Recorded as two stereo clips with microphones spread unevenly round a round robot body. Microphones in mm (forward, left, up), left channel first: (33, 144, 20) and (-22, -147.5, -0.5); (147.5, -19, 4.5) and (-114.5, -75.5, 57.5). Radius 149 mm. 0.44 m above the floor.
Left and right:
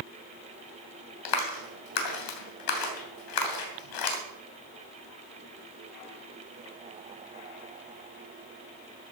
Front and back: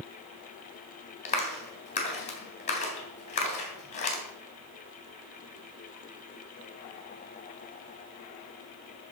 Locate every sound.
1.2 s a clap: 75° left, 3 m